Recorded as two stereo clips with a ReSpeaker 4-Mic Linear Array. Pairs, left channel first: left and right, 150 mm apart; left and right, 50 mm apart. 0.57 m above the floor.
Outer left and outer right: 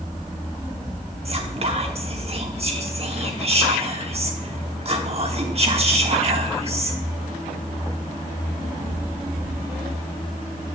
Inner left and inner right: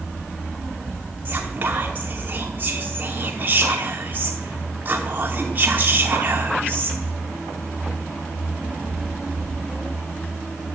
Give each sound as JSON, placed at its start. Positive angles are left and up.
{"t": 1.2, "sound": "whispering", "side_deg": -40, "distance_m": 1.0}